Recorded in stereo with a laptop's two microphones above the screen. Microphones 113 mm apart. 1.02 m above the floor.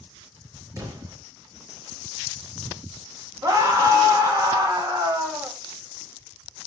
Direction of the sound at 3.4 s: 30° right (ahead or behind).